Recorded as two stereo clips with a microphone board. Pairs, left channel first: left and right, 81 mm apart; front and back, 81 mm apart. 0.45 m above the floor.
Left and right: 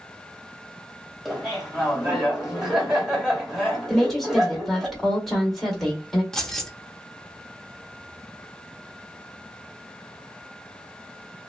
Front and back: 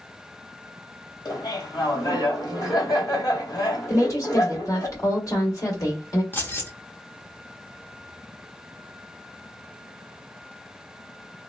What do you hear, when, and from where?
1.2 s laughter: 10° right, 2.0 m
3.9 s a woman speaking: 5° left, 1.6 m
6.3 s keys jangling: 15° left, 0.8 m